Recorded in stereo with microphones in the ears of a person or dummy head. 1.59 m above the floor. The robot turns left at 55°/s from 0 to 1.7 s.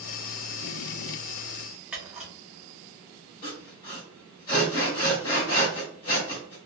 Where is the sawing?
25° left (ahead or behind), 1.6 m.